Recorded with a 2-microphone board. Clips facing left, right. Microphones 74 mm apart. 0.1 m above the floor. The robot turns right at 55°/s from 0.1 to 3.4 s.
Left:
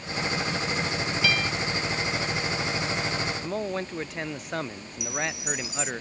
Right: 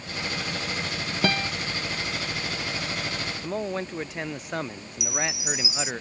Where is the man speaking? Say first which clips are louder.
Even; centre (ahead or behind).